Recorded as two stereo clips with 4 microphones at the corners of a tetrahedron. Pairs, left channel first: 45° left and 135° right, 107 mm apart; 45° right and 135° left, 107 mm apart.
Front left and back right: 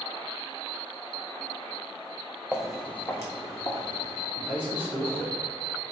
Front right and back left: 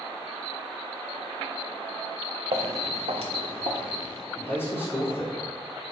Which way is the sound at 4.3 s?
80° right.